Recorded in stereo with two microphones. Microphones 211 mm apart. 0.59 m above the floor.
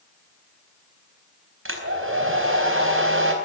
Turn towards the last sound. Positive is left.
turn(degrees=-75)  # may be behind; listen again after turning